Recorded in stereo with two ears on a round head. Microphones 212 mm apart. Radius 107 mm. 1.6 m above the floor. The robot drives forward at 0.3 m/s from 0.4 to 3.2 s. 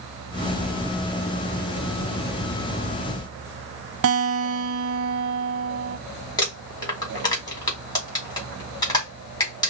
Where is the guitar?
60° right (ahead or behind), 0.6 m.